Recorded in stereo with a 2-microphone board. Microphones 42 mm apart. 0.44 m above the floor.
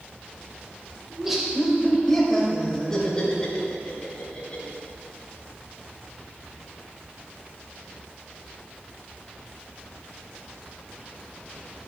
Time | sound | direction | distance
1.1 | laughter | 10° right (ahead or behind) | 1.8 m